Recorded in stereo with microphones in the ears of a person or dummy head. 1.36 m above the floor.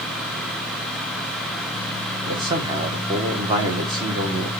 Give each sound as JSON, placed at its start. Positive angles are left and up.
{"t": 2.2, "sound": "a man speaking", "side_deg": -25, "distance_m": 1.2}